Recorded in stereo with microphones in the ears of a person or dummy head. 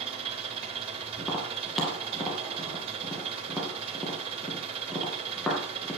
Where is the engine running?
30° right (ahead or behind), 4 m.